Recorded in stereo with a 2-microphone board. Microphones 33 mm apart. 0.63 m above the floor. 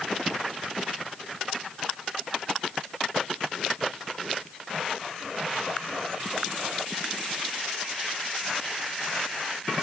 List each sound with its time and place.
Only background noise.